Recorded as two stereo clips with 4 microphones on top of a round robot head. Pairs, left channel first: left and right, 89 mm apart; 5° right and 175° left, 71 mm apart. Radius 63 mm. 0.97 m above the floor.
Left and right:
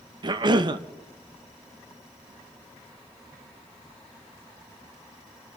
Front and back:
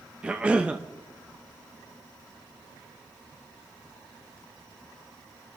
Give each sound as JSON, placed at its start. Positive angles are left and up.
{"t": 0.2, "sound": "a cough", "azimuth_deg": -115, "distance_m": 1.0}